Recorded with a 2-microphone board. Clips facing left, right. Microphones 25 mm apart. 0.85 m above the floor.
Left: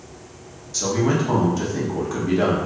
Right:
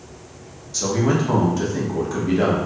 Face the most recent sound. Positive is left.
turn(degrees=-5)  # may be behind; listen again after turning